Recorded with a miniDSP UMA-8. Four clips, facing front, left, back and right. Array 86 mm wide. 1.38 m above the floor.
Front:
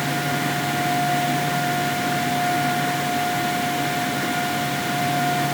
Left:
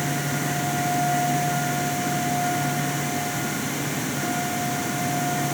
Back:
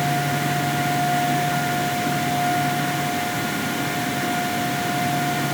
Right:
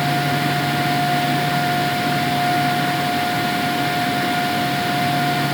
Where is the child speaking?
I don't hear a child speaking.